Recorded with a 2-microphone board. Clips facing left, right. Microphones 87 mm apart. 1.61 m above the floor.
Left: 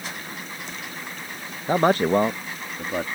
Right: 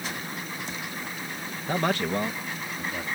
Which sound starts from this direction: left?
A man speaking, at 1.7 s.